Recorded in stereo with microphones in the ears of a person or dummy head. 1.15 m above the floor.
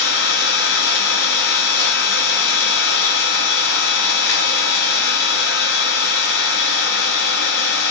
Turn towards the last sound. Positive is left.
turn(degrees=70)  # may be behind; listen again after turning